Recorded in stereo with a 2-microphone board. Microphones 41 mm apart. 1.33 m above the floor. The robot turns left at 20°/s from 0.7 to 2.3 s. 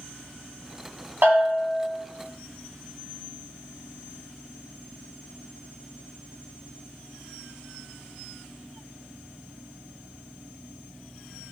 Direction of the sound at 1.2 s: 55° right (ahead or behind).